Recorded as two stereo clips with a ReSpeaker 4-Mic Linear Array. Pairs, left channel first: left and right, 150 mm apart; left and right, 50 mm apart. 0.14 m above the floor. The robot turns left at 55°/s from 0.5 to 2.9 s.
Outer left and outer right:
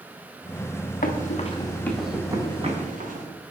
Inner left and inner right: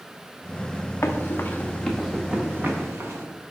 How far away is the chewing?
I don't hear chewing.